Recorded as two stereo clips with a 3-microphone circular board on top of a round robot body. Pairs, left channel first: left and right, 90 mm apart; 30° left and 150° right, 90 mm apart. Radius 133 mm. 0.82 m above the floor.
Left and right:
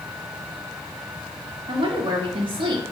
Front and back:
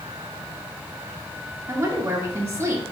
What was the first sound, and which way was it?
A woman speaking, 85° right.